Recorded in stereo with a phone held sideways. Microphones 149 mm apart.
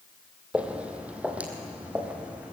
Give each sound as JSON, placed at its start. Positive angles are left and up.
{"t": 0.5, "sound": "footsteps", "side_deg": -10, "distance_m": 2.0}